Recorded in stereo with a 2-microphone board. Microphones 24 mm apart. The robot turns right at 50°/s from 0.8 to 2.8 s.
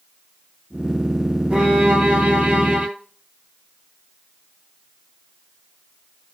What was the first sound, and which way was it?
A violin, 130° right.